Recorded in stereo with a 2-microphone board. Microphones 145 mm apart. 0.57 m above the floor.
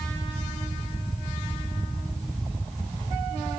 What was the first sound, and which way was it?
Only background noise.